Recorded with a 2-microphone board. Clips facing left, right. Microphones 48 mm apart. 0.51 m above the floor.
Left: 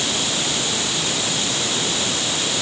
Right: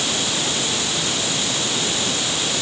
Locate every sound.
Only background noise.